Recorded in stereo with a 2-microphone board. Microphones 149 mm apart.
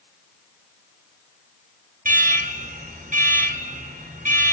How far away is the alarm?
About 4 m.